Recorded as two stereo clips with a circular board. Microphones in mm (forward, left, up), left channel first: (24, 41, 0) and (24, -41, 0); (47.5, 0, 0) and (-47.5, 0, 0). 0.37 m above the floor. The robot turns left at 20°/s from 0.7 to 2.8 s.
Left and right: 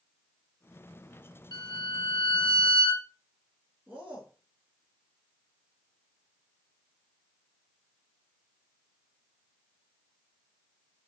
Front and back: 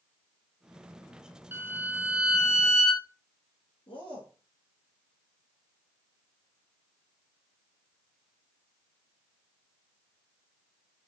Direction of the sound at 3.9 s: 25° right.